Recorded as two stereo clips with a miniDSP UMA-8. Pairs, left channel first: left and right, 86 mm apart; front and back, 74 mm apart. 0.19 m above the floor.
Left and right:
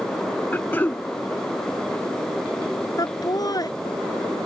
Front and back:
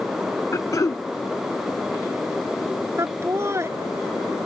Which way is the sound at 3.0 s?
130° left.